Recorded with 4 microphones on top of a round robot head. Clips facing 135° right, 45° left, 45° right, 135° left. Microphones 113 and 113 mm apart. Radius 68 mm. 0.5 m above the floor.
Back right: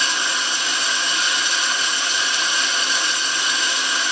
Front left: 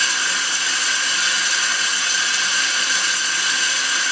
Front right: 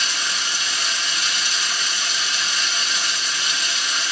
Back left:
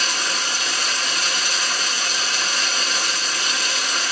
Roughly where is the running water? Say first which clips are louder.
Back right 1 dB, back left 2 dB; behind.